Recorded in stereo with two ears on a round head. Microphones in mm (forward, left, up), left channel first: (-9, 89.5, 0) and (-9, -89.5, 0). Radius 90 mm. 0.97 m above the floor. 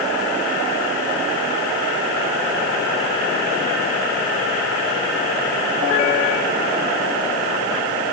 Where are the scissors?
I don't hear scissors.